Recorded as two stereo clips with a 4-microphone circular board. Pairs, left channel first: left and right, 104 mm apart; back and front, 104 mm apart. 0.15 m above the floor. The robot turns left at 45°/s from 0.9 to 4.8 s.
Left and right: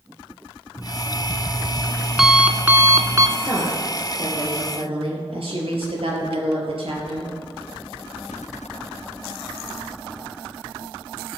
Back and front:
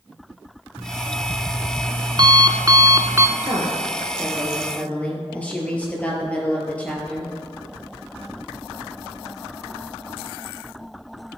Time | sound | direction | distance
0.8 | an alarm clock | 55° left | 0.6 m
3.4 | a woman speaking | 40° right | 3.5 m